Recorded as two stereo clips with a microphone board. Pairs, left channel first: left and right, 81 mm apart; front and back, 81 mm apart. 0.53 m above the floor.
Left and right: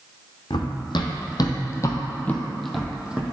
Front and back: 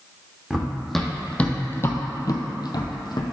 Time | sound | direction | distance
0.5 | running footsteps | 95° left | 1.4 m